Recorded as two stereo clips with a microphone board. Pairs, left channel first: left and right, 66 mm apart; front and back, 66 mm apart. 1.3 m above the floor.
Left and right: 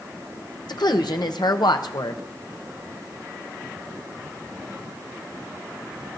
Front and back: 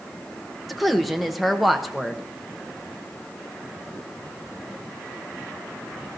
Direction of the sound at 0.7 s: 90° left.